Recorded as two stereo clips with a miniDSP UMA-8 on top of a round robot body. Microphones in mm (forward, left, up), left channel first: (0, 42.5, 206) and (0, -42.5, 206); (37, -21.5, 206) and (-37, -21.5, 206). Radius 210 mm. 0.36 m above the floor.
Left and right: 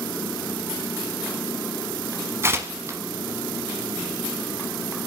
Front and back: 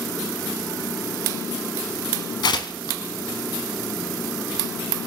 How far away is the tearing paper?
About 1.0 m.